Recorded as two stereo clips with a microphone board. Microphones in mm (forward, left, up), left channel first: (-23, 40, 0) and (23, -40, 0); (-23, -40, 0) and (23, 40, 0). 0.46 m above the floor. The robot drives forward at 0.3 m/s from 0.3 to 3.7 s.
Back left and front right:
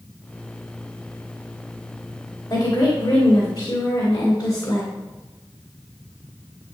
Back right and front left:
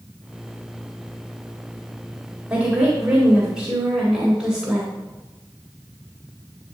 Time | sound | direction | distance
2.5 | a woman speaking | 135° left | 2 m